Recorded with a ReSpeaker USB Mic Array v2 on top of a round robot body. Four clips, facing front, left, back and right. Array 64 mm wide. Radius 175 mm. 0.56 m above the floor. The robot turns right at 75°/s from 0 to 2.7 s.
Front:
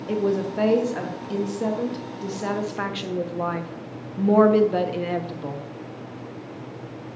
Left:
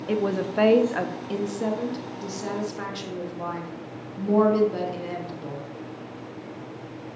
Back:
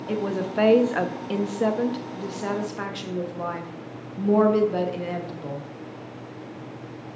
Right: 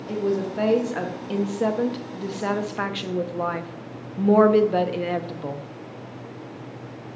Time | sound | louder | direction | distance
0.1 | a woman speaking | even, front 3 dB | 95° left | 1.3 m